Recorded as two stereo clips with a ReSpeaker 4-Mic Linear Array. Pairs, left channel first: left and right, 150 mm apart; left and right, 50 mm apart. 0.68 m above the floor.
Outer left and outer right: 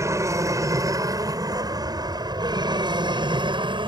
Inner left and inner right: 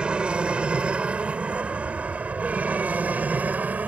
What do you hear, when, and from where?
0.0 s an aircraft: 20° right (ahead or behind); by 3.9 s 35° right (ahead or behind)